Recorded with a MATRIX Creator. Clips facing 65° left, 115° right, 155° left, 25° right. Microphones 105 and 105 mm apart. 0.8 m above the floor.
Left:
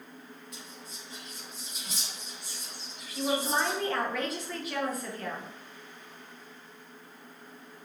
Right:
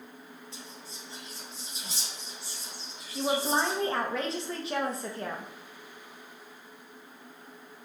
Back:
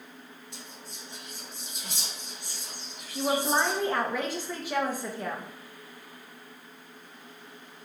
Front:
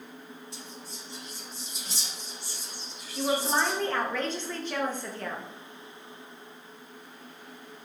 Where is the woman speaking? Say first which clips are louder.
Right 1 dB, back 1 dB; 135° right, 0.8 m.